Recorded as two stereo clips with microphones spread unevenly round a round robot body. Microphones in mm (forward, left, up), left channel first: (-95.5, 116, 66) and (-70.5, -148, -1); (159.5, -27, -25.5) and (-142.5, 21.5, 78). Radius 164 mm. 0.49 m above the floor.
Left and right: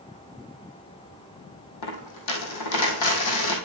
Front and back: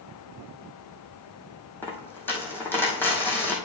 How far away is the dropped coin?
About 1.8 m.